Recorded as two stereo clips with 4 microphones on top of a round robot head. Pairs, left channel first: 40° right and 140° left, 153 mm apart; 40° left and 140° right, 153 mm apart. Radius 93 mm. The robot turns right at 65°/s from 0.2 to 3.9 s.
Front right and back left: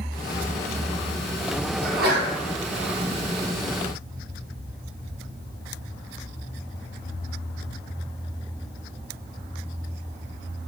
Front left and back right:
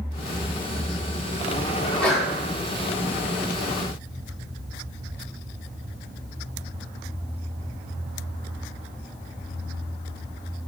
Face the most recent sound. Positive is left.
turn(degrees=-115)